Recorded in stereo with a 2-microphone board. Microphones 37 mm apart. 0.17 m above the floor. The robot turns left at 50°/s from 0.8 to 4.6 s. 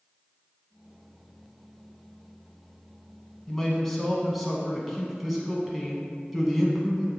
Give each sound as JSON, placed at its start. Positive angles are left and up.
{"t": 3.5, "sound": "a man speaking", "side_deg": 15, "distance_m": 1.0}